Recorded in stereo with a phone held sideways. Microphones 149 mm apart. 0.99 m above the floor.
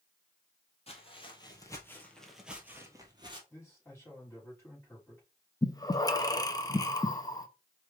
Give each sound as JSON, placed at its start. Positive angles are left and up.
{"t": 0.9, "sound": "footsteps", "side_deg": 40, "distance_m": 1.7}
{"t": 3.5, "sound": "a man speaking", "side_deg": 15, "distance_m": 3.0}
{"t": 5.6, "sound": "breathing", "side_deg": 25, "distance_m": 0.6}